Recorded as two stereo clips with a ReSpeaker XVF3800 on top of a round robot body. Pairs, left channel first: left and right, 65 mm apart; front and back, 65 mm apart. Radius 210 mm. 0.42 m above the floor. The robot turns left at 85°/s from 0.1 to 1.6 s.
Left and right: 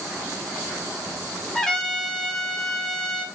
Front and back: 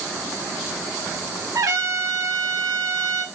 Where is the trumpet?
175° left, 1.9 m; by 3.2 s 170° left, 1.9 m.